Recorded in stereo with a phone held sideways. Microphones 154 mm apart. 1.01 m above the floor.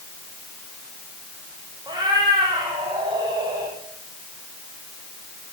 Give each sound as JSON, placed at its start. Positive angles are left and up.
{"t": 1.9, "sound": "a cat meowing", "side_deg": -30, "distance_m": 3.5}